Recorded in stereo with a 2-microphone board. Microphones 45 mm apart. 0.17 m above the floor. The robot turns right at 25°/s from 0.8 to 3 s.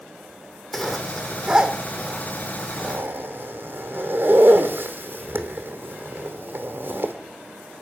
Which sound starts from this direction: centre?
A zipper, at 0.7 s.